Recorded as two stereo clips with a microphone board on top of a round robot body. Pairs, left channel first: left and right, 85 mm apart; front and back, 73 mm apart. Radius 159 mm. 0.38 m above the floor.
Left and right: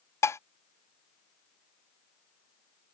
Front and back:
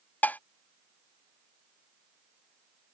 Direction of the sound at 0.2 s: 55° left.